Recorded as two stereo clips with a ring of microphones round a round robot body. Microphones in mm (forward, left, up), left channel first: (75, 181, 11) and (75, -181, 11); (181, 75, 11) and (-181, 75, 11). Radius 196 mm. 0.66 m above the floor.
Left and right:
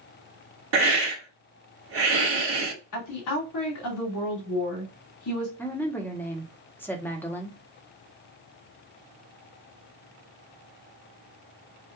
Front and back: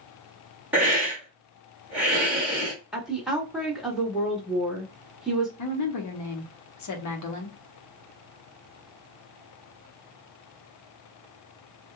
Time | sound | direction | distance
0.7 | a hiss | 95° right | 1.2 m
2.9 | a woman speaking | 90° left | 1.5 m
5.6 | a woman speaking | 5° left | 0.8 m